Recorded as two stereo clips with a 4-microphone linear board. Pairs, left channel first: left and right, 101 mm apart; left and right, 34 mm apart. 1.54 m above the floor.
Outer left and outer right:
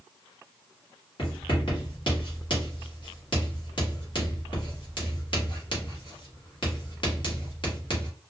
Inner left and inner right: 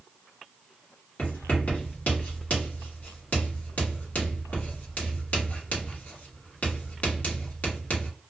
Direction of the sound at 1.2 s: 55° left (ahead or behind).